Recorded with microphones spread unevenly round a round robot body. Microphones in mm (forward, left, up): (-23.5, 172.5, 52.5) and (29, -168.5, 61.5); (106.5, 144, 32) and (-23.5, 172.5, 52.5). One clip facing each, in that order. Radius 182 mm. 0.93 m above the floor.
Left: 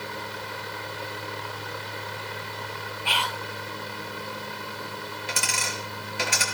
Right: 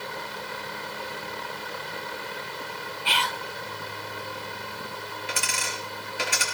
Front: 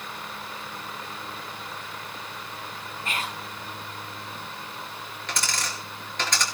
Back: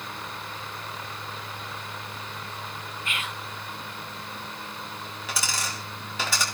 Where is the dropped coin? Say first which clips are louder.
Left 1 dB, front 1 dB; 85° left, 4.5 m.